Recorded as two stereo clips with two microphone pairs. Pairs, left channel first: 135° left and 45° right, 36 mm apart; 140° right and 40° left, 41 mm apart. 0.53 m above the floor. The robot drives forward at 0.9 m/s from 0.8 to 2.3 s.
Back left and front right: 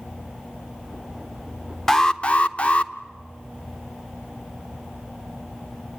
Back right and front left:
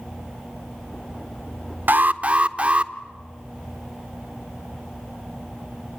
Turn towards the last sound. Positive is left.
turn(degrees=85)